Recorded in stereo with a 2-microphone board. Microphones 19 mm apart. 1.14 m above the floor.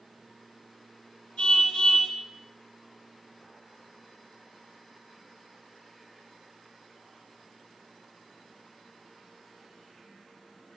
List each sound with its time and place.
1.4 s a car horn: 65° left (ahead or behind), 6 m